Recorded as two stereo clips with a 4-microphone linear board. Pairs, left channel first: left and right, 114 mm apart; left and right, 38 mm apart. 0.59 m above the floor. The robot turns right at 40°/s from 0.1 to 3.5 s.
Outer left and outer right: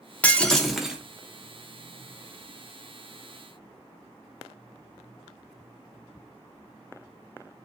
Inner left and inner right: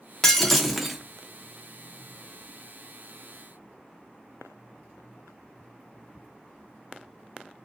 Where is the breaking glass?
160° left, 0.5 m; by 1.0 s 165° right, 0.5 m.